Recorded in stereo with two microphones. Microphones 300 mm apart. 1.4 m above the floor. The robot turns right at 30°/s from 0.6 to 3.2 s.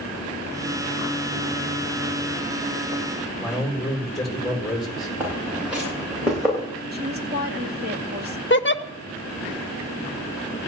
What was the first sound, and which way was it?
A man speaking, centre (ahead or behind).